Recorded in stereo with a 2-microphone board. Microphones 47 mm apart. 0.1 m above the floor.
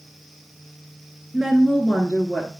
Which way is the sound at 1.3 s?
15° right (ahead or behind).